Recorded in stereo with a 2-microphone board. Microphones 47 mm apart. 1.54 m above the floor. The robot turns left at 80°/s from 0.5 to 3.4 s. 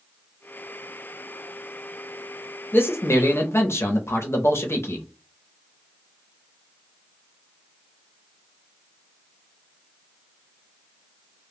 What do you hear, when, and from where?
2.7 s a man speaking: 130° left, 0.5 m; by 5.0 s 75° left, 0.5 m